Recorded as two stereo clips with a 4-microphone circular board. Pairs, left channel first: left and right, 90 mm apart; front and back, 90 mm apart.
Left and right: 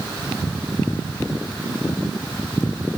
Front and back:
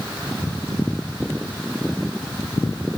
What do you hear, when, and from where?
Only background noise.